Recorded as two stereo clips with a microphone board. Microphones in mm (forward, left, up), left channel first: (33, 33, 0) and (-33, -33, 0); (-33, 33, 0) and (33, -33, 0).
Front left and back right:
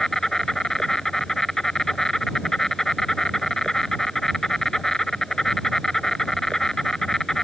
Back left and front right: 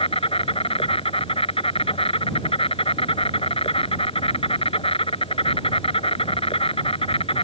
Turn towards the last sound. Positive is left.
turn(degrees=130)